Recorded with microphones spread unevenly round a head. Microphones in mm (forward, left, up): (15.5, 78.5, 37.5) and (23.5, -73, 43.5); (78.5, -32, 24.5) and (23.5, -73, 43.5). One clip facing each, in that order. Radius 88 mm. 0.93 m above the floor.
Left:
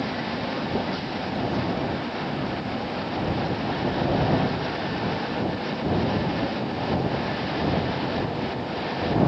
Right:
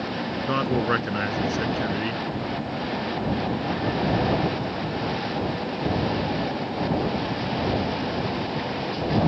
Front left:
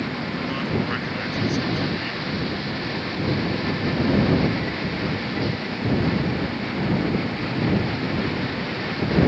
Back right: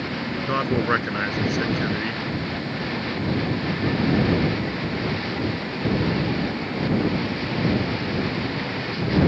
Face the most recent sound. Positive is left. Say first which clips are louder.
# right 7 dB, back right 6 dB
turn(degrees=-110)